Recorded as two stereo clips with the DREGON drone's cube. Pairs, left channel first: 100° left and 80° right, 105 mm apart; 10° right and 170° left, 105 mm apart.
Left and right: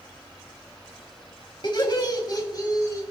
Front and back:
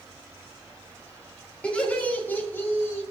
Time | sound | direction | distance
1.6 | laughter | 65° left | 2.5 m